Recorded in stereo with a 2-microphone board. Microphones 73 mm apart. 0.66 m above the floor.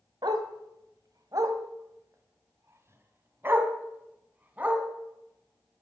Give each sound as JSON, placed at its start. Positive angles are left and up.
{"t": 0.2, "sound": "a dog barking", "side_deg": -80, "distance_m": 1.6}